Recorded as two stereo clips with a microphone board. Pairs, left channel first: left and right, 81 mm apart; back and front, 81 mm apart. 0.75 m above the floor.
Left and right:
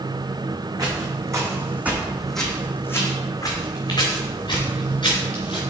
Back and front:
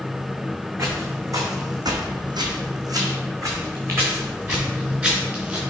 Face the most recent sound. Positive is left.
turn(degrees=75)